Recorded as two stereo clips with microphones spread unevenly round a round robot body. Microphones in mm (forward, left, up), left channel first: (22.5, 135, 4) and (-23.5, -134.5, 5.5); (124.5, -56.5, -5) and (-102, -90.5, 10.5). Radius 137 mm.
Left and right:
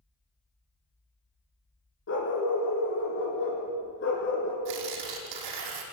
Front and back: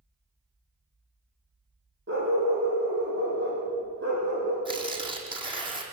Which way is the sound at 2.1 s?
130° left.